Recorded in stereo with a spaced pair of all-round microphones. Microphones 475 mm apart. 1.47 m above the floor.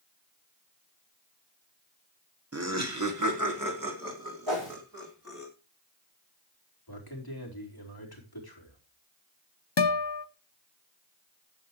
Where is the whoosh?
65° right (ahead or behind), 4.5 m.